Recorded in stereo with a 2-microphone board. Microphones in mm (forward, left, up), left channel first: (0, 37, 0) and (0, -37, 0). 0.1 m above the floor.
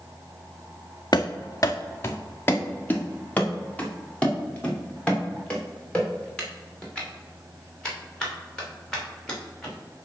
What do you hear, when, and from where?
1.1 s running footsteps: 60° left (ahead or behind), 0.7 m; by 9.7 s 10° left (ahead or behind), 5 m